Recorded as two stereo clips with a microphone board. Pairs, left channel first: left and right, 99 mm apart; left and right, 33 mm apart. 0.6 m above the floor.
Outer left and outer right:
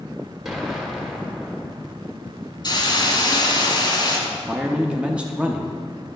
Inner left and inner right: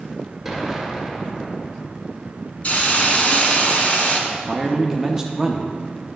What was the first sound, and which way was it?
An explosion, 5° right (ahead or behind).